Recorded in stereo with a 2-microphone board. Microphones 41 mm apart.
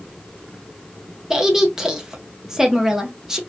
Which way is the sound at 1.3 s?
15° right (ahead or behind).